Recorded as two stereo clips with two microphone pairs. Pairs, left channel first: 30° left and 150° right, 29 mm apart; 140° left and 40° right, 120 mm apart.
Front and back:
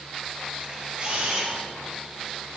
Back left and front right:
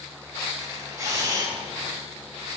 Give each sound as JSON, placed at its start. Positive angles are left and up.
{"t": 0.6, "sound": "a camera shutter", "azimuth_deg": -100, "distance_m": 3.5}